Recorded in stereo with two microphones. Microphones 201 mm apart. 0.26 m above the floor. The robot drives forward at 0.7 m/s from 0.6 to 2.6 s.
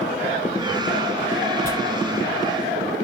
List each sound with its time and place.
1.6 s tearing paper: 50° left (ahead or behind), 7.5 m